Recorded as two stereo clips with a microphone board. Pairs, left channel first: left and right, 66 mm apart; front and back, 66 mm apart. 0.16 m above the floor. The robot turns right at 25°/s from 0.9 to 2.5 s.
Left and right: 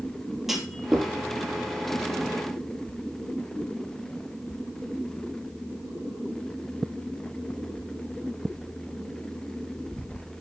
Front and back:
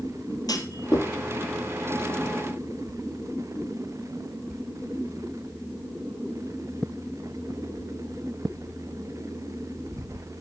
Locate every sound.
0.5 s a clunk: 5° right, 2.5 m; by 1.1 s straight ahead, 2.5 m